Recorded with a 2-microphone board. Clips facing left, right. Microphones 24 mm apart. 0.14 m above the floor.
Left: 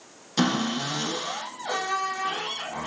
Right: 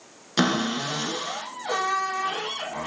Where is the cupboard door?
30° right (ahead or behind), 1.5 m.